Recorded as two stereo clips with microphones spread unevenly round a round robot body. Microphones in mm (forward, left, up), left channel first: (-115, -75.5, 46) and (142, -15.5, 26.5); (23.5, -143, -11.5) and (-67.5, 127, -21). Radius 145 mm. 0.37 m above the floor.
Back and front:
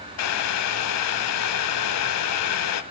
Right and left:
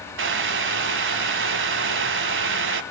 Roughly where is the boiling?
Behind.